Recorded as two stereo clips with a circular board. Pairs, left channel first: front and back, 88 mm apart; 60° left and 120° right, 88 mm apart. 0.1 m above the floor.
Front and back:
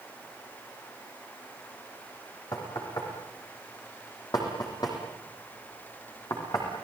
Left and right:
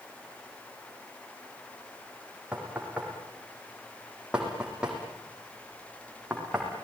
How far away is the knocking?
About 6 m.